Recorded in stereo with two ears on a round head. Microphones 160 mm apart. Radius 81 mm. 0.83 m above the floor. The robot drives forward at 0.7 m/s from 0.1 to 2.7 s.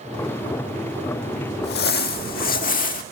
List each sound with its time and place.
1.6 s crumpling: 60° left (ahead or behind), 1.8 m; by 3.0 s 50° left (ahead or behind), 2 m